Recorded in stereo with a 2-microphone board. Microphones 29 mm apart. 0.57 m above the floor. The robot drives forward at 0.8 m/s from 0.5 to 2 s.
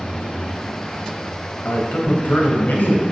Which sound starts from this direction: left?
A man speaking, at 1.6 s.